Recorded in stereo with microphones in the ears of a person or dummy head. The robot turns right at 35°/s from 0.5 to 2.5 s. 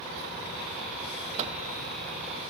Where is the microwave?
35° right (ahead or behind), 0.7 m; by 1.6 s 30° right (ahead or behind), 0.7 m.